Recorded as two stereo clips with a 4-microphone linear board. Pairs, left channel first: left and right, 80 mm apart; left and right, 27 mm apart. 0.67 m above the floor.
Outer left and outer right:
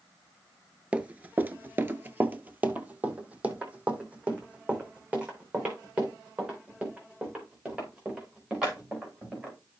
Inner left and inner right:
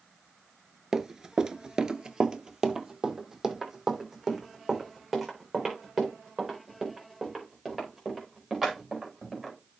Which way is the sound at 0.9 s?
15° right (ahead or behind).